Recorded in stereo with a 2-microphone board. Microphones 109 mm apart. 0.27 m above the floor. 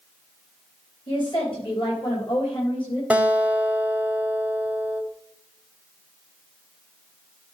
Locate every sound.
1.1 s a woman speaking: 50° left (ahead or behind), 5.5 m; by 3.0 s 55° left (ahead or behind), 7.5 m
3.1 s a guitar: 15° right (ahead or behind), 1.3 m